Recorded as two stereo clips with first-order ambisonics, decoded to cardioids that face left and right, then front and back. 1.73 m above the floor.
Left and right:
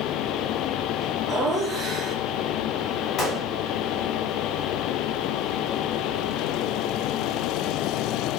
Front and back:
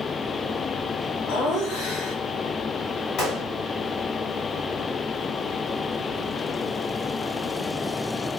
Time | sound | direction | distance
1.3 | laughter | 15° right | 1.4 m
3.2 | a gunshot | 35° left | 2.5 m